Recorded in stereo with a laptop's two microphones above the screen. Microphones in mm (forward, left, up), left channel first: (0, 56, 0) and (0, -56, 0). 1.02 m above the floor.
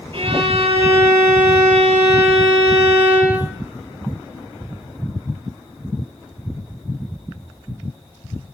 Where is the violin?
50° right (ahead or behind), 8 m.